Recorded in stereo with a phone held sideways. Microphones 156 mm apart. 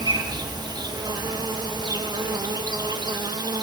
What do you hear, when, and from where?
0.0 s an insect: 25° right (ahead or behind), 1.0 m